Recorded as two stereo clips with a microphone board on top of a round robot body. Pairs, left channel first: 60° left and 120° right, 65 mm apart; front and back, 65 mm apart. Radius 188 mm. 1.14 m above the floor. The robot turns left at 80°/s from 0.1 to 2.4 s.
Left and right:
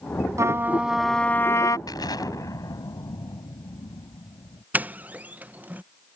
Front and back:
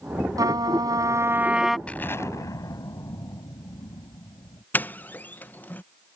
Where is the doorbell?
60° right.